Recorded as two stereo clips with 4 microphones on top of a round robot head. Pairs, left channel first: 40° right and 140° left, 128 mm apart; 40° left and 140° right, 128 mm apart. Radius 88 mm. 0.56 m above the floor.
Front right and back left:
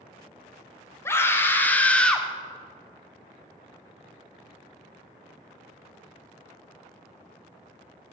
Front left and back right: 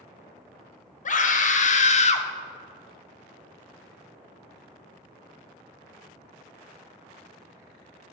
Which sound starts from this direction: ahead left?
A scream, at 1.1 s.